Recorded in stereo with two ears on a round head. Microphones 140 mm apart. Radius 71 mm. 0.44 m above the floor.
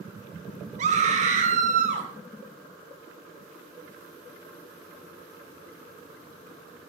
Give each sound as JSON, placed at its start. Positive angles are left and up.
{"t": 0.8, "sound": "a scream", "side_deg": -50, "distance_m": 5.0}